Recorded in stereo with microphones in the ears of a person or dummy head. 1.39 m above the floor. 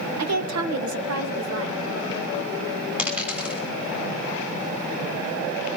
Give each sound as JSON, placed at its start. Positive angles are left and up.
{"t": 0.2, "sound": "a woman speaking", "side_deg": -80, "distance_m": 1.4}
{"t": 3.0, "sound": "a dropped coin", "side_deg": -10, "distance_m": 3.0}